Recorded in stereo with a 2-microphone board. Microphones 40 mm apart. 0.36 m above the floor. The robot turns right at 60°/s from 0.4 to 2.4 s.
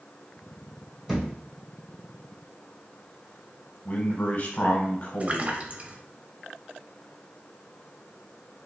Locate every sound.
1.1 s a thud: centre (ahead or behind), 1.4 m; by 1.3 s 10° left (ahead or behind), 1.4 m
3.9 s a man speaking: 50° left (ahead or behind), 1.5 m
5.2 s a splash: 40° right (ahead or behind), 0.8 m